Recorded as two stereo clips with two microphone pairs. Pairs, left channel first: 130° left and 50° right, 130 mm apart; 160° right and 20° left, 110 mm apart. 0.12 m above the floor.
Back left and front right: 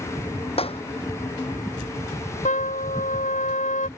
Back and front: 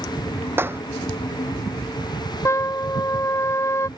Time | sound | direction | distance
0.6 | a clap | 85° left | ?
2.5 | a trumpet | 135° left | ?